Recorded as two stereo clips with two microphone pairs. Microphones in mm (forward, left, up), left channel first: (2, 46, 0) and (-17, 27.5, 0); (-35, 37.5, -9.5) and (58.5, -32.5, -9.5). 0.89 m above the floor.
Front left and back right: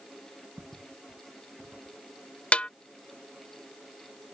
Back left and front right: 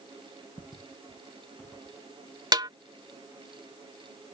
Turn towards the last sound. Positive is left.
turn(degrees=15)